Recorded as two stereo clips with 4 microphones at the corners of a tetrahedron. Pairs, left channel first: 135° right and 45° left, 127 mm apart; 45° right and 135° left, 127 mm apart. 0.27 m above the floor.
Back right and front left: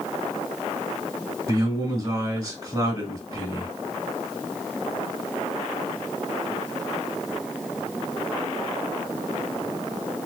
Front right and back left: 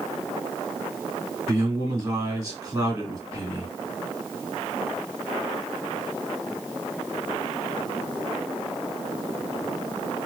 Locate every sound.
1.5 s a man speaking: 80° left, 1.3 m